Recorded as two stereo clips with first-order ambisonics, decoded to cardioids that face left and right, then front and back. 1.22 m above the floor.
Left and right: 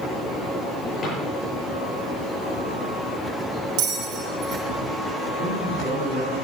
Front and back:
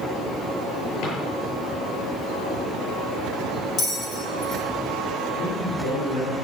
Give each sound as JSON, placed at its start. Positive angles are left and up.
{"t": 1.0, "sound": "a drawer", "azimuth_deg": 20, "distance_m": 8.0}
{"t": 3.8, "sound": "a bell", "azimuth_deg": -60, "distance_m": 4.5}
{"t": 5.4, "sound": "a man speaking", "azimuth_deg": -10, "distance_m": 6.5}